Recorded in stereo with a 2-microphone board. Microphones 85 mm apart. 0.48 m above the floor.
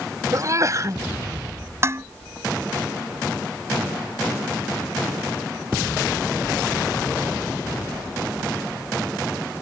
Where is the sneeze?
45° right (ahead or behind).